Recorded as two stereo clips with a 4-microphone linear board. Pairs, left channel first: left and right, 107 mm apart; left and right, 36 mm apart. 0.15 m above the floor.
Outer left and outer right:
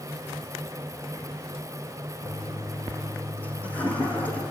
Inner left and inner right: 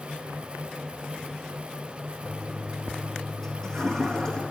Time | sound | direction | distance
2.2 | a toilet flushing | 15° left (ahead or behind) | 4 m